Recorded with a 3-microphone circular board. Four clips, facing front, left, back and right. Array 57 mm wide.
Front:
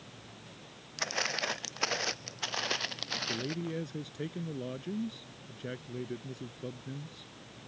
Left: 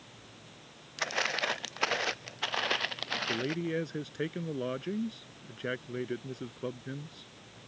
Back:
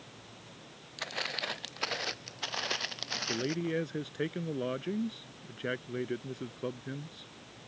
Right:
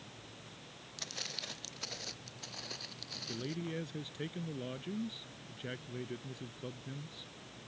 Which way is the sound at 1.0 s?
75° left.